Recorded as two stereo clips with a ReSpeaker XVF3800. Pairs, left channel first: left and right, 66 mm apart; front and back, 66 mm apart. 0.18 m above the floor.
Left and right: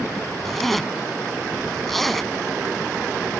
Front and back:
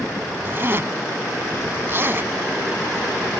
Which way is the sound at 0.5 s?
175° left.